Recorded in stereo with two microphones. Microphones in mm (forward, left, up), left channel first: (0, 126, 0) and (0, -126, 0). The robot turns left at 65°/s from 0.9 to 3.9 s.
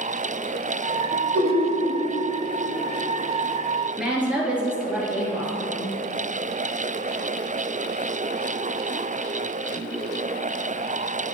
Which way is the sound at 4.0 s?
5° right (ahead or behind).